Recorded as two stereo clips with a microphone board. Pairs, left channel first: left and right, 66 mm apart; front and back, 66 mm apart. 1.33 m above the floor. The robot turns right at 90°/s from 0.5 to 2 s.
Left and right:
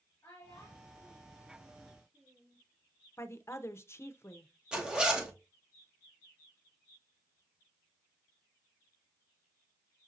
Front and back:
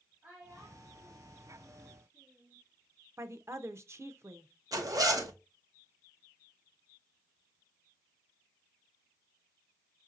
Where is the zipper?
165° right, 1.0 m.